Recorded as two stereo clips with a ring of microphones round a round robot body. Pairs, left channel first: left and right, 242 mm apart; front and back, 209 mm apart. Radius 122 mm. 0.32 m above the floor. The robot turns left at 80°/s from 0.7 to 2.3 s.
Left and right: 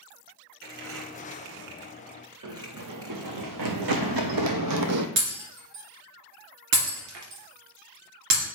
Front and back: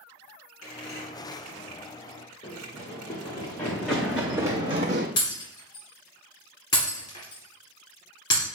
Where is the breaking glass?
75° right, 2.5 m.